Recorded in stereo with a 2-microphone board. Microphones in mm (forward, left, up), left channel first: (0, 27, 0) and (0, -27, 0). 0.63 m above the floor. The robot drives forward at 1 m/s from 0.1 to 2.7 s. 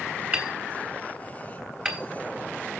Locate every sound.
0.3 s hammering: 30° right (ahead or behind), 2 m; by 2.0 s 15° right (ahead or behind), 3.5 m